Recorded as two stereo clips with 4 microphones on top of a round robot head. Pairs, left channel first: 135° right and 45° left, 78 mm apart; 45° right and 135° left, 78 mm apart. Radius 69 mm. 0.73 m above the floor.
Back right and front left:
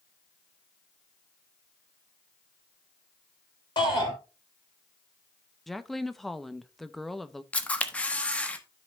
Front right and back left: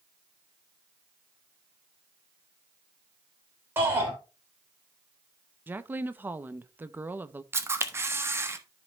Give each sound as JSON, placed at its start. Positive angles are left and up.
{"t": 3.8, "sound": "a shout", "azimuth_deg": -165, "distance_m": 3.5}
{"t": 5.7, "sound": "a woman speaking", "azimuth_deg": 140, "distance_m": 0.7}
{"t": 7.5, "sound": "a camera shutter", "azimuth_deg": 165, "distance_m": 1.0}